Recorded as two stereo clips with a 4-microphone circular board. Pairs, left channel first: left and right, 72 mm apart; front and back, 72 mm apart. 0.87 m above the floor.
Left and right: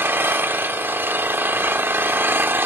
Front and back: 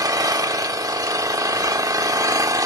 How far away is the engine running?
About 1.0 m.